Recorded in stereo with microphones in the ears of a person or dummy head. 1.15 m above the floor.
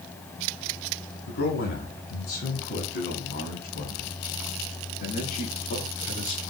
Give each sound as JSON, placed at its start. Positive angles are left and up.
{"t": 1.3, "sound": "a man speaking", "side_deg": 55, "distance_m": 9.5}